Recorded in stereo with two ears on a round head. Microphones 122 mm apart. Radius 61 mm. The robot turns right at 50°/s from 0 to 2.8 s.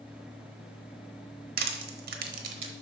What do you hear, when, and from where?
1.6 s crushing: 75° right (ahead or behind), 1.0 m; by 2.7 s 45° right (ahead or behind), 1.0 m